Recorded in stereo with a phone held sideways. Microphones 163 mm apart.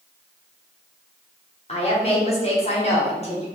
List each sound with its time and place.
1.7 s a woman speaking: 40° left (ahead or behind), 0.7 m